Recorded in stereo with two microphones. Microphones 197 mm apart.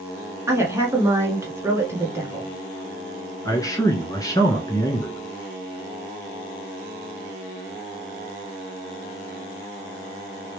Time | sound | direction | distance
0.5 | a woman speaking | 10° right (ahead or behind) | 1.5 m
3.5 | a man speaking | 15° left (ahead or behind) | 1.1 m